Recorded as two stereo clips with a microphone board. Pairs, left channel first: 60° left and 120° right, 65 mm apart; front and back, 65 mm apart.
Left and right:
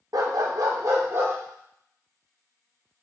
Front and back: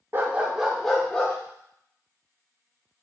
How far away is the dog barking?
About 0.6 m.